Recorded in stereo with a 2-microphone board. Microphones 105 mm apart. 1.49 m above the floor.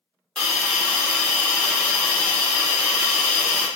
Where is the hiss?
5° left (ahead or behind), 0.8 m.